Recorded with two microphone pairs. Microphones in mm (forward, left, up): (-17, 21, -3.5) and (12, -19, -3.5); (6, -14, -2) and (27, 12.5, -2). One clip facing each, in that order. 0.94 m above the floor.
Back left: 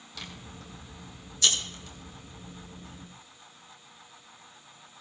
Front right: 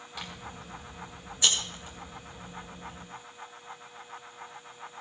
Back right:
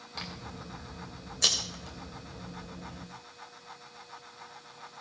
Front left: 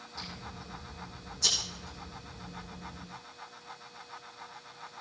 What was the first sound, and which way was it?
Scissors, 125° right.